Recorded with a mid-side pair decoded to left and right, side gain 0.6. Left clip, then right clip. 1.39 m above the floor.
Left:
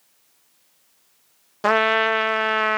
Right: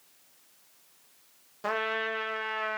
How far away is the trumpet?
About 0.7 m.